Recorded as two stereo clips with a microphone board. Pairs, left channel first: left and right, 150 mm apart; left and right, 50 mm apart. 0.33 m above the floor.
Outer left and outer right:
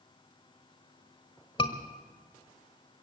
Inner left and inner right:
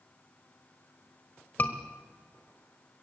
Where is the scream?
35° left (ahead or behind), 1.3 m.